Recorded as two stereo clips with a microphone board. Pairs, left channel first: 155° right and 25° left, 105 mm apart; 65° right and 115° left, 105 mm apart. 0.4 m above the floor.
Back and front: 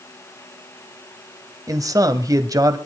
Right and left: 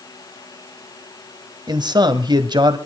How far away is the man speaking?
About 1.8 m.